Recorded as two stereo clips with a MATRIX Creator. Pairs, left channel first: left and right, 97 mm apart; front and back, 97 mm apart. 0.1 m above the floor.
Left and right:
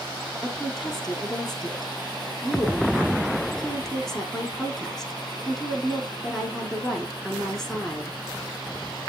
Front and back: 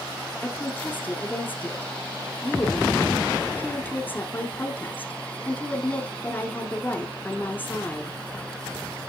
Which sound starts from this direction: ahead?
A woman speaking, at 0.4 s.